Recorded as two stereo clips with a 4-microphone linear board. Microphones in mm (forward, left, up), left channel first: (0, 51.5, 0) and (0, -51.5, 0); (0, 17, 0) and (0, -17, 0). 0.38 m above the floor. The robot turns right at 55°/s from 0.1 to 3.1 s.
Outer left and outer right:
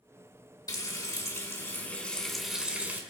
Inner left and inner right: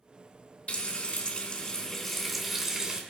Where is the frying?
85° left, 1.7 m; by 3.0 s 145° right, 1.7 m.